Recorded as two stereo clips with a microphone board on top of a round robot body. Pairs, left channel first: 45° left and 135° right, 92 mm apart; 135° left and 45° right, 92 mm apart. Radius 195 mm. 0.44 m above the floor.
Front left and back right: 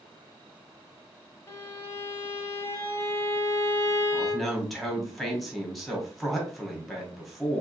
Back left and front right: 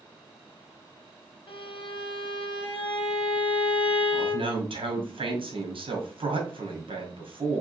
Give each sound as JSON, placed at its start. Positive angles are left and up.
{"t": 1.5, "sound": "a violin", "azimuth_deg": 105, "distance_m": 0.5}
{"t": 4.1, "sound": "a man speaking", "azimuth_deg": -45, "distance_m": 1.8}